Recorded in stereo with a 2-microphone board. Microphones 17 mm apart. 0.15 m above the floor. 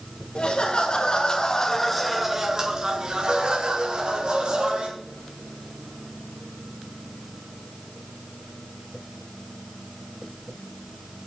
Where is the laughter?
65° left (ahead or behind), 2.5 m; by 4.9 s 60° right (ahead or behind), 4 m.